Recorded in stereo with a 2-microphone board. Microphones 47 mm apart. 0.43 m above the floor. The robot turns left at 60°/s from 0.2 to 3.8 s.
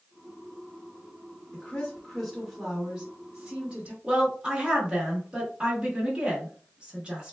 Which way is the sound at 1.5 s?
20° left (ahead or behind).